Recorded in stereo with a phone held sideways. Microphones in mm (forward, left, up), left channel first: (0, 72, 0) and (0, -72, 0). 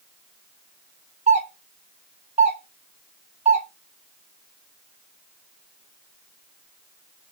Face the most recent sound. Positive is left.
turn(degrees=-50)  # may be behind; listen again after turning